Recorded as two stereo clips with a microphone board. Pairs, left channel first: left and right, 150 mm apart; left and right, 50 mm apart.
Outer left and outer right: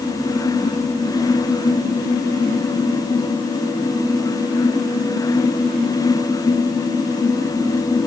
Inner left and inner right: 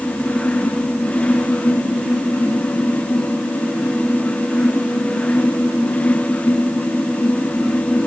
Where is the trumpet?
No trumpet in this recording.